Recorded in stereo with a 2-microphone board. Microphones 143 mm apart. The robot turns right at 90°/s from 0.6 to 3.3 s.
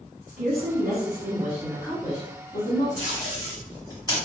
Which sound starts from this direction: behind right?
A woman speaking, at 0.3 s.